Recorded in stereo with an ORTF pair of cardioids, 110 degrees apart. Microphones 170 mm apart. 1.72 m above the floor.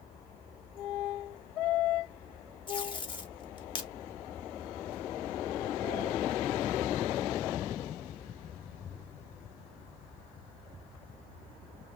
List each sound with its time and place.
2.7 s tape being pulled: 30° left, 0.8 m